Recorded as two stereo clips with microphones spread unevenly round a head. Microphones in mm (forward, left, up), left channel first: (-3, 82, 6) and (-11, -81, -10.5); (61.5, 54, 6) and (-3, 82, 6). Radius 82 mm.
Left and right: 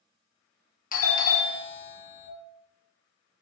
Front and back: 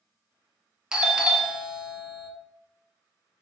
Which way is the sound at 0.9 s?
85° left.